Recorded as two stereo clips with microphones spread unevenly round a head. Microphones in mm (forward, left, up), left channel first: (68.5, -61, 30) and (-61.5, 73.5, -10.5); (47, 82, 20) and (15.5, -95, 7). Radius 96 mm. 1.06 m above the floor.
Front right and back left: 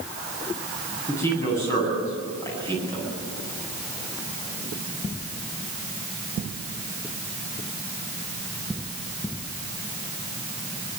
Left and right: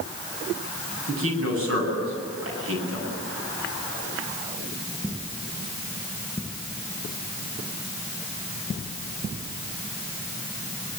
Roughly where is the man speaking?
Behind right.